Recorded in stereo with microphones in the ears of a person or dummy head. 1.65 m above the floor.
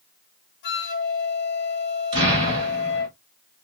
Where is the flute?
55° left (ahead or behind), 0.8 m.